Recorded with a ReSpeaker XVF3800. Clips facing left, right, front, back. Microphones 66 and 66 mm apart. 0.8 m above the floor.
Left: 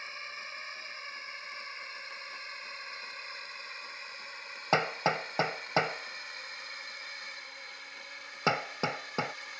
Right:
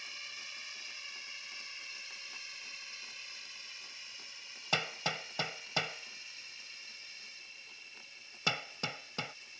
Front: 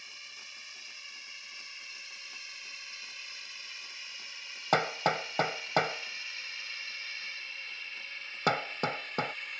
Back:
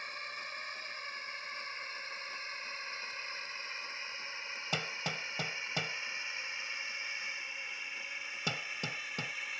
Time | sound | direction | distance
0.0 | a drone | 140° left | ?
4.7 | hammering | 35° left | ?